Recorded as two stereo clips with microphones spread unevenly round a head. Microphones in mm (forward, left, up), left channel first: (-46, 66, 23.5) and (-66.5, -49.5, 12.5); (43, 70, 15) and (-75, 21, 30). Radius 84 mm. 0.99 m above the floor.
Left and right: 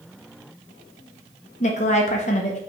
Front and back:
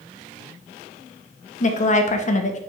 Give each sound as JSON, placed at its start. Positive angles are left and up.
{"t": 1.6, "sound": "a woman speaking", "azimuth_deg": 35, "distance_m": 1.2}